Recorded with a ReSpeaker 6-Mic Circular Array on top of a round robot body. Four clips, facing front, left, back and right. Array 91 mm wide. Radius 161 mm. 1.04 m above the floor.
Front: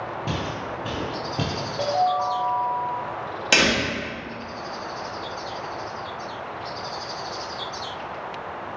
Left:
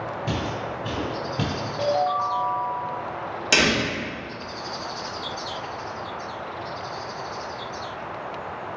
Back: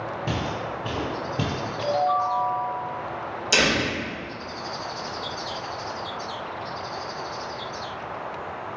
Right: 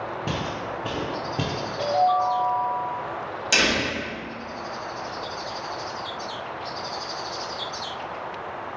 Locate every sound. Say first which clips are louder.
0.3 s footsteps: left 2 dB, back 2 dB; 85° right, 1.4 m; by 1.5 s 70° right, 1.0 m
1.8 s a ringtone: right 2 dB, front 1 dB; 30° left, 1.5 m
3.5 s a door slam: left 2 dB, front 1 dB; 25° left, 1.7 m